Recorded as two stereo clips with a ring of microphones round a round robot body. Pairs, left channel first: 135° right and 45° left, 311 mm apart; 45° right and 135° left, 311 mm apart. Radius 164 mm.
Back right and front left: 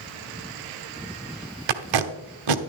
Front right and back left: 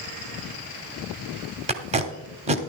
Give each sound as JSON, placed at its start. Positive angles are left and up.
{"t": 1.7, "sound": "tape being pulled", "azimuth_deg": 65, "distance_m": 0.9}